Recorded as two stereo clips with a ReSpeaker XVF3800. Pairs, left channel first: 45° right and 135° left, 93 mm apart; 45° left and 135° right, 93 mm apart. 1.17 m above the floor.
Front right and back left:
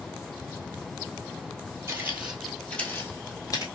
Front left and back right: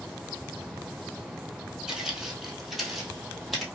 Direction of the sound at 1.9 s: 150° left.